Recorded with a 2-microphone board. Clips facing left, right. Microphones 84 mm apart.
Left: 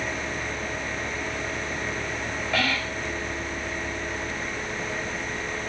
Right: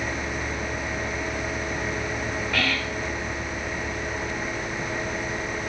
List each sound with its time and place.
2.5 s whispering: 10° right (ahead or behind), 1.4 m